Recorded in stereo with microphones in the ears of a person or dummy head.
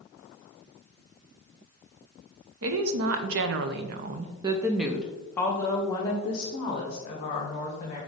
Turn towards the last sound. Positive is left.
turn(degrees=40)  # may be behind; listen again after turning